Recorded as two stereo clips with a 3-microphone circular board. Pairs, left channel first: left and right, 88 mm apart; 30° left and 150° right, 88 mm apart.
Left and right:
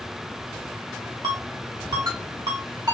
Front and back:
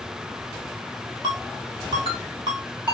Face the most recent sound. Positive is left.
turn(degrees=-130)